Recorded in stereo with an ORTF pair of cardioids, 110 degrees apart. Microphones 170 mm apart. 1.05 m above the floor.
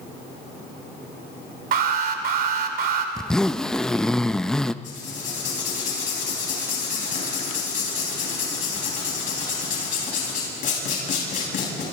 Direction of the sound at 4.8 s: 50° left.